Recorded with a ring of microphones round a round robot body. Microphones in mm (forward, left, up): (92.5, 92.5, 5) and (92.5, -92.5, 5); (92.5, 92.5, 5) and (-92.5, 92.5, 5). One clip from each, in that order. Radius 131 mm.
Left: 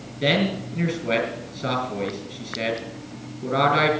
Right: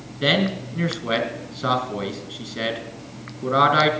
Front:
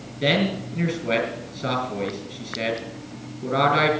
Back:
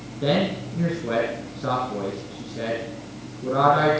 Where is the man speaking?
40° right, 3.5 m.